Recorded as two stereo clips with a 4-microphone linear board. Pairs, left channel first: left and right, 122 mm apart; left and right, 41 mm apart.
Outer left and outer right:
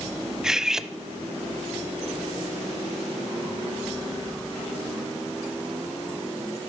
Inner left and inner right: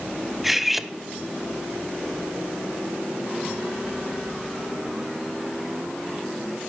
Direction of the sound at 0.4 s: 5° right (ahead or behind).